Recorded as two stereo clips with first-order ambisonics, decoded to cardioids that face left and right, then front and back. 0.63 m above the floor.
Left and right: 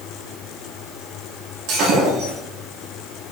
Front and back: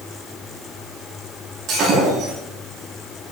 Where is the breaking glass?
120° right, 8 m.